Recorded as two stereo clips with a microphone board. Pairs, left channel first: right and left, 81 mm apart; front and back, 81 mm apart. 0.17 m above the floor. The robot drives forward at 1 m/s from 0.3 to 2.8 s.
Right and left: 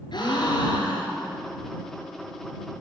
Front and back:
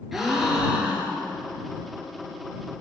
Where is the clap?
I don't hear a clap.